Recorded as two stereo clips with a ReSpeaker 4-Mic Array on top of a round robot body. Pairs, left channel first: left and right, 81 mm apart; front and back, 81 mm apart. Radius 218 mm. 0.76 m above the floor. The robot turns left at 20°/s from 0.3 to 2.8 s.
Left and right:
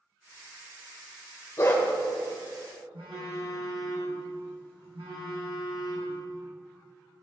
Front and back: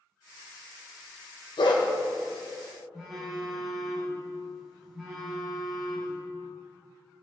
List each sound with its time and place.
1.6 s a dog barking: 30° left, 1.8 m; by 1.8 s 25° left, 1.8 m
2.9 s a phone buzzing: 90° right, 4.5 m